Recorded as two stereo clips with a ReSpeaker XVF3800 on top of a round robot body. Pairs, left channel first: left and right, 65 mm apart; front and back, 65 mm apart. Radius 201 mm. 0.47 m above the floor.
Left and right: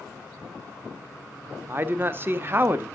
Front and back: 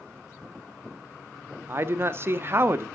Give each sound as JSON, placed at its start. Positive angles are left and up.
{"t": 1.7, "sound": "a man speaking", "azimuth_deg": -135, "distance_m": 1.1}